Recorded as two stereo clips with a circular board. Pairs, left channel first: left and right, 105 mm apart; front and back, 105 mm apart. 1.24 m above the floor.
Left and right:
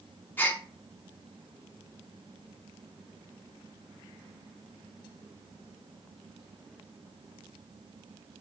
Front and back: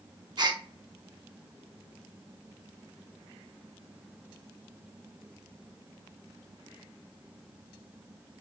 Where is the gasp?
155° left, 0.7 m.